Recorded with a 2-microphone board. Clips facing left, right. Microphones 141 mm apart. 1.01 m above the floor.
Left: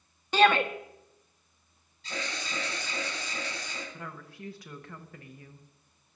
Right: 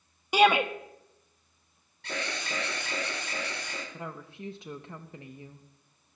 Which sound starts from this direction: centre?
A shout, at 0.3 s.